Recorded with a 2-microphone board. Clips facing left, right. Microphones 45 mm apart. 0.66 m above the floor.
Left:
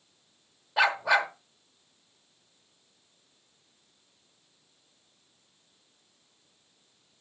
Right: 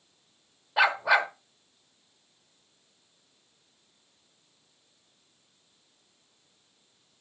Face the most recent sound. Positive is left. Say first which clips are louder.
# right 1 dB
turn(degrees=-5)  # may be behind; listen again after turning